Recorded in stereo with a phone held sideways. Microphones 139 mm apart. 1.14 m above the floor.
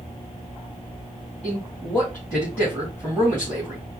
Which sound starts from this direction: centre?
A man speaking, at 1.4 s.